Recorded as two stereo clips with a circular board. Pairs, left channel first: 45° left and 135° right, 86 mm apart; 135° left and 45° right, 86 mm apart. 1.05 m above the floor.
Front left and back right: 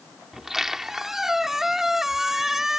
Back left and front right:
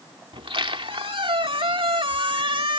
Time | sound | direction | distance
0.3 | a squeak | 50° right | ?